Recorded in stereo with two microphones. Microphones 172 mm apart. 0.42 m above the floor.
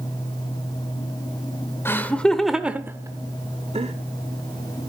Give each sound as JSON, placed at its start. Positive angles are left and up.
{"t": 1.9, "sound": "laughter", "side_deg": 15, "distance_m": 1.5}